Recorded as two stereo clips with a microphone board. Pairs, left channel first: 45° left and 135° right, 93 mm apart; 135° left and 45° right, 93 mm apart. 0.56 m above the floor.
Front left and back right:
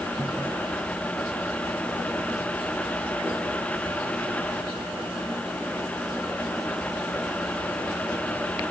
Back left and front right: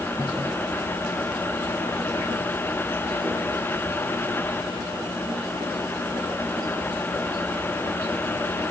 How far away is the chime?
I don't hear a chime.